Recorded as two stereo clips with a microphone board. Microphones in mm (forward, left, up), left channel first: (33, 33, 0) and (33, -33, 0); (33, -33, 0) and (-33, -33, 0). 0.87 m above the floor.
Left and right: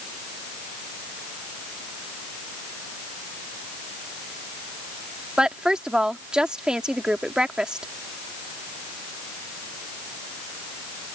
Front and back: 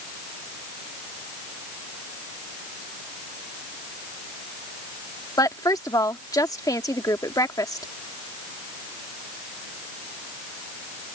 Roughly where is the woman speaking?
Ahead.